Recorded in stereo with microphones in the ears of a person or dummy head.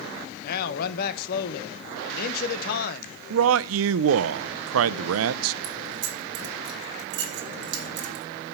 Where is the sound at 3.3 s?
75° right (ahead or behind), 0.5 m.